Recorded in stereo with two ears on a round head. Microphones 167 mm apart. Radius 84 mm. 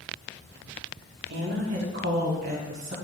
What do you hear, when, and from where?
1.3 s a woman speaking: 70° right (ahead or behind), 2.5 m; by 2.9 s 40° right (ahead or behind), 2.5 m